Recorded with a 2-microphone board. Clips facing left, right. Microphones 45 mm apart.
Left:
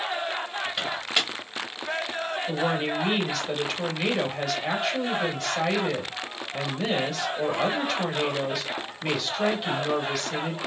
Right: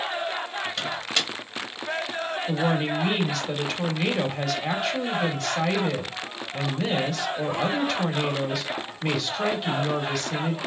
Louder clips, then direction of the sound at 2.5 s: Right 2 dB; 5° left (ahead or behind).